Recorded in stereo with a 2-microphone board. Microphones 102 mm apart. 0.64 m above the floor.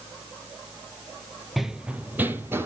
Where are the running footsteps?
Centre (ahead or behind), 0.6 m; by 2.6 s 25° right (ahead or behind), 1.2 m.